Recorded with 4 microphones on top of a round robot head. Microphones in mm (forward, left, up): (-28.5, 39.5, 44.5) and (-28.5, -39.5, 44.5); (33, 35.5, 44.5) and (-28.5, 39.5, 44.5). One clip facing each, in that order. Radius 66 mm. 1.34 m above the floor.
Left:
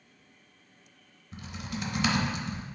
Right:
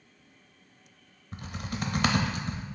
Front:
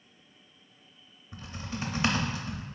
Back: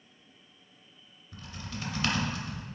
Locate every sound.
1.3 s typing on a keyboard: 65° right, 0.6 m